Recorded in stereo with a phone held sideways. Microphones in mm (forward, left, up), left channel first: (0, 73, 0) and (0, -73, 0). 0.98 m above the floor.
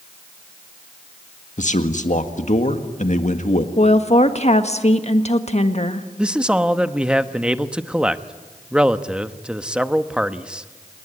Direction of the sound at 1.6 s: 55° left (ahead or behind).